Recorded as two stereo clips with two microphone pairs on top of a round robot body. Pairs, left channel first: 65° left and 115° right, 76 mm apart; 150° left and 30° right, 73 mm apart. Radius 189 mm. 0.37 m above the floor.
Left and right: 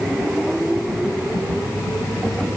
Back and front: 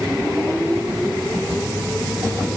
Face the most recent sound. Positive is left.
No sound to turn to.